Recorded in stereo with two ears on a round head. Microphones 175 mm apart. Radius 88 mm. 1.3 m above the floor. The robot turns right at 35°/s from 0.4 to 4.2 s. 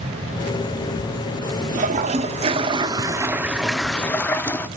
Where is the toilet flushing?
70° right, 0.6 m; by 4.7 s 15° left, 0.6 m.